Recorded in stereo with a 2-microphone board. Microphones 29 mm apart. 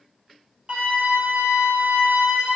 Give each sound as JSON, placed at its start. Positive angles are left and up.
{"t": 0.7, "sound": "a flute", "side_deg": -40, "distance_m": 0.9}